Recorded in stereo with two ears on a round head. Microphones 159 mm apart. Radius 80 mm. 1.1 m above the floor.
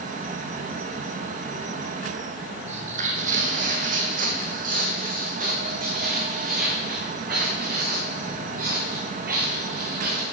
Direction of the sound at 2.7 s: 40° right (ahead or behind).